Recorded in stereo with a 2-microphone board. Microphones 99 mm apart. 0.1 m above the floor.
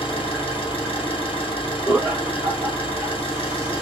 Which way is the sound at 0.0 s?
60° left (ahead or behind).